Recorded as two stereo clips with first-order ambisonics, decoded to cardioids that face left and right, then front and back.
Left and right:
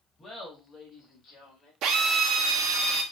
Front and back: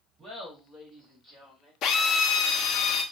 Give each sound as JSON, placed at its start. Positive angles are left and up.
{"t": 0.2, "sound": "laughter", "azimuth_deg": 145, "distance_m": 0.9}
{"t": 1.8, "sound": "a drill", "azimuth_deg": -50, "distance_m": 0.6}